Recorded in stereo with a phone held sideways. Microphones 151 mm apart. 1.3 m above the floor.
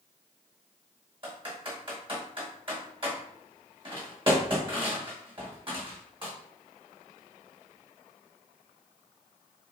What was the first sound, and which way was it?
Typing on a keyboard, 35° right (ahead or behind).